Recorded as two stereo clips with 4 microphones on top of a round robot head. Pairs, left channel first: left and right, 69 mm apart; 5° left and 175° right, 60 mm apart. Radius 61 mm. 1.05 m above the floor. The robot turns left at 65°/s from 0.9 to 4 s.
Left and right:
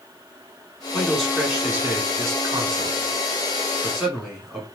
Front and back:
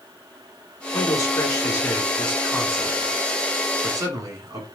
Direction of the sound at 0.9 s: 15° left.